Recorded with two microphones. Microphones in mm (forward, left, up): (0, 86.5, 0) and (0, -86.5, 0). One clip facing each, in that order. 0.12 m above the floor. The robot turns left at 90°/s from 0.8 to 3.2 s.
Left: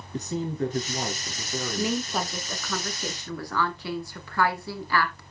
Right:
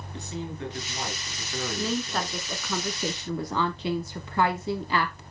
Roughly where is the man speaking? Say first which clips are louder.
Left 7 dB; left.